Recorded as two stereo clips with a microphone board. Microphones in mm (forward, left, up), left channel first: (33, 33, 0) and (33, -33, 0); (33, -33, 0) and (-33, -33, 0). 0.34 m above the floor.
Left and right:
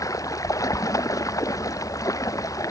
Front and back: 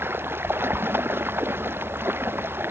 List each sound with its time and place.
0.0 s running water: 125° left